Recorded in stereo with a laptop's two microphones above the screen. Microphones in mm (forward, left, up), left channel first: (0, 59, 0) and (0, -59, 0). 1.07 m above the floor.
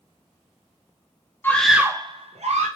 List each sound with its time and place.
1.4 s a scream: 20° left (ahead or behind), 0.6 m; by 2.7 s 75° right (ahead or behind), 0.9 m